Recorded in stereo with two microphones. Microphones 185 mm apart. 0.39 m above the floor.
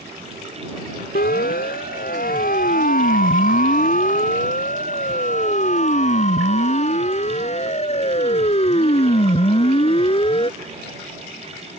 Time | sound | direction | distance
1.1 | a siren | 60° left (ahead or behind) | ?